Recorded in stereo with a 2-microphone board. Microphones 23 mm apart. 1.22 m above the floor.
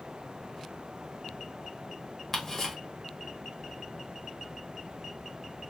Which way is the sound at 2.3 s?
10° left (ahead or behind).